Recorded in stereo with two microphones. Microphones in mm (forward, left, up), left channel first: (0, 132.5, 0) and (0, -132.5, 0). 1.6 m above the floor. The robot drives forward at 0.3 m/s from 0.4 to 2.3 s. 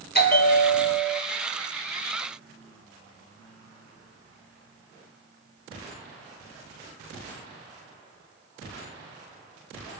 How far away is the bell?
About 3.5 m.